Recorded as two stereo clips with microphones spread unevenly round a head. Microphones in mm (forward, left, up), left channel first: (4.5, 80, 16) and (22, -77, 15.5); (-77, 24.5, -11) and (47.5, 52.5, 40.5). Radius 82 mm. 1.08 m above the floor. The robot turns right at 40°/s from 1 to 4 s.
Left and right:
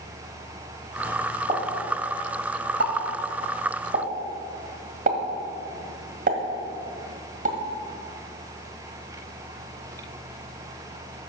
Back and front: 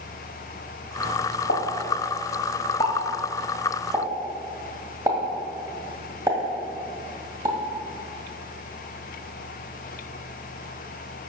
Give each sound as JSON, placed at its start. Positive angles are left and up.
{"t": 1.5, "sound": "a pop", "azimuth_deg": -145, "distance_m": 1.8}